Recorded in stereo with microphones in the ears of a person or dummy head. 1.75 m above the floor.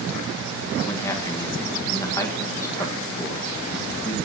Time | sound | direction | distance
0.8 | a man speaking | 20° left (ahead or behind) | 1.8 m